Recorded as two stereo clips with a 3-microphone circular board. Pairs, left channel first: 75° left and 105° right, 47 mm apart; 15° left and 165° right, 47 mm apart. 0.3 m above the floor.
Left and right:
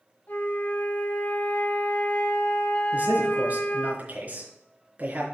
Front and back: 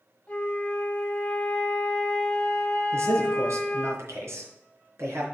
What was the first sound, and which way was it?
A flute, 70° left.